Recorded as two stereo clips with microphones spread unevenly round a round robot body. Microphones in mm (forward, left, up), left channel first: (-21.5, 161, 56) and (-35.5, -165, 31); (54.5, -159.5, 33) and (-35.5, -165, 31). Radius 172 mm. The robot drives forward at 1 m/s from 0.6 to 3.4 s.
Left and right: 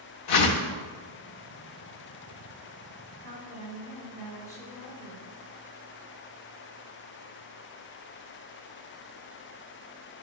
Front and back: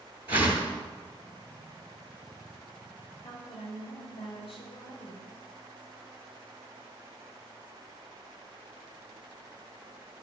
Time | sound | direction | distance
0.3 | a whoosh | 65° left | 0.9 m
3.2 | a woman speaking | 5° left | 2.5 m